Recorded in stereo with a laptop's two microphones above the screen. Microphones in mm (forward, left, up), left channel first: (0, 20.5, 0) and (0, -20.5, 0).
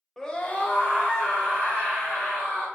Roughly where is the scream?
Centre.